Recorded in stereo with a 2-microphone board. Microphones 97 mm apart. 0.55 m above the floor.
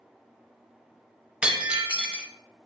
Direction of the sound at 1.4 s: 10° right (ahead or behind).